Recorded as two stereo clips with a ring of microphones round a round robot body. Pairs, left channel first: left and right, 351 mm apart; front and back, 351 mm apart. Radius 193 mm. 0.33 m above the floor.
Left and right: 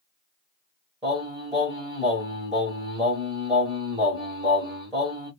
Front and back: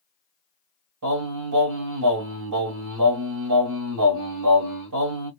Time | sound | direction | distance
1.0 | singing | 165° right | 1.5 m